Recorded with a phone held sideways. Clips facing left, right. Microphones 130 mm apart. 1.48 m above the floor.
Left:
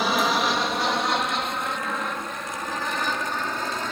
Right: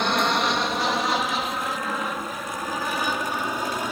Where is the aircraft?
5° left (ahead or behind); by 3.9 s 10° right (ahead or behind).